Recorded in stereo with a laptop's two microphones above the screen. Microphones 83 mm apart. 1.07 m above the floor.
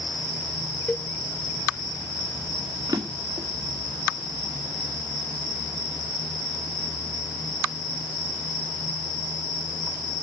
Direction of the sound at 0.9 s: 10° left (ahead or behind).